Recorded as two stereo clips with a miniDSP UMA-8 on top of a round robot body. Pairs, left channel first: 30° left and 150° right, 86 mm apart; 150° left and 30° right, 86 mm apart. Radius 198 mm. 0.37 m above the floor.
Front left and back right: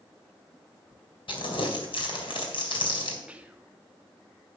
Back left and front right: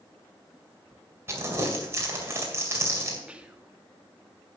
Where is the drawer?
I don't hear a drawer.